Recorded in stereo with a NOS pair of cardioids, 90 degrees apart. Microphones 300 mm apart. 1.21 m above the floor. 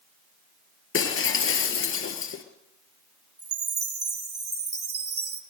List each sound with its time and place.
0.9 s breaking glass: 50° left, 4 m
3.4 s a chime: 35° right, 4 m